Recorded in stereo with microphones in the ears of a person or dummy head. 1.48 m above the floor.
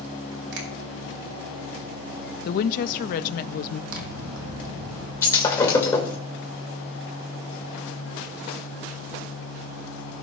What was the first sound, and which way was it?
A finger snap, 70° right (ahead or behind).